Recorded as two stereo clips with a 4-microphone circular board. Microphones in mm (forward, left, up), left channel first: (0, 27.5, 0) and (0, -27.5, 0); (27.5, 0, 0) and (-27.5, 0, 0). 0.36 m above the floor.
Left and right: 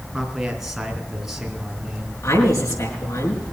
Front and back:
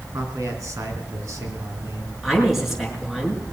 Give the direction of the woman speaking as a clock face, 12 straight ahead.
9 o'clock.